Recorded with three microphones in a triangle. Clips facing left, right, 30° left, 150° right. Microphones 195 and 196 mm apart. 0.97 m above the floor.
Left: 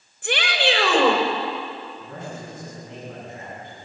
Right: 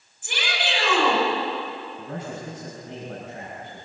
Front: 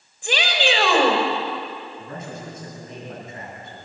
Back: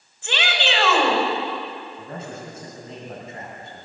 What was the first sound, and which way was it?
A shout, 105° left.